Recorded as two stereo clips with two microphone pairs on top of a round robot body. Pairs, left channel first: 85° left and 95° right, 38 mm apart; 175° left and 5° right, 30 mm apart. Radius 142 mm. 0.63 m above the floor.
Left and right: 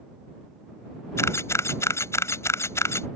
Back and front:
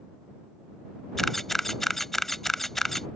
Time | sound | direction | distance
1.2 | a camera shutter | 85° left | ?